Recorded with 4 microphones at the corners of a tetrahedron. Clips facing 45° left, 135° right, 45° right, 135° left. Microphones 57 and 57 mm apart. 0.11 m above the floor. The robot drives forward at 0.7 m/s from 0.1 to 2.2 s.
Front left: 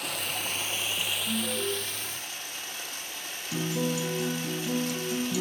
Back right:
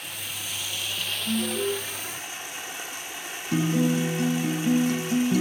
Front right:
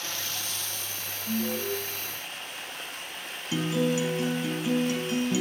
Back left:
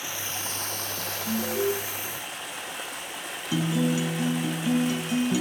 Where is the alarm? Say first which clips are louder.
Back right 7 dB, back left 3 dB; 160° left, 4.5 m.